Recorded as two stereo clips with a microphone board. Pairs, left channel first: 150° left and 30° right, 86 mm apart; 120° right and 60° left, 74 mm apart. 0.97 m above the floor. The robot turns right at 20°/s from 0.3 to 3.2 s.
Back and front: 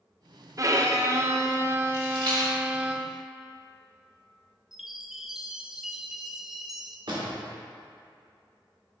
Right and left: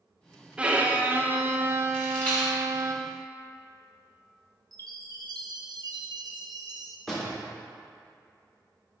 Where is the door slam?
35° right, 1.9 m.